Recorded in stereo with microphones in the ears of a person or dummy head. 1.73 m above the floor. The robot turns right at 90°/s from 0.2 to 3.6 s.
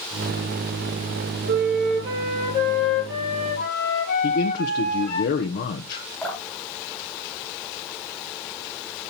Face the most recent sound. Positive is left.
turn(degrees=10)  # may be behind; listen again after turning